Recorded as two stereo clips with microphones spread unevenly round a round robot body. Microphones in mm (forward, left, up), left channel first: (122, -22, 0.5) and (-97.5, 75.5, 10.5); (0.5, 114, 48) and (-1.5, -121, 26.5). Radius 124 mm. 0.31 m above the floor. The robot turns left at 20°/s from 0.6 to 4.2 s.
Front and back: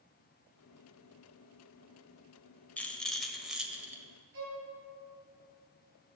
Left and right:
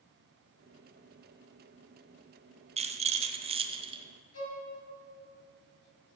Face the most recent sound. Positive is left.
turn(degrees=120)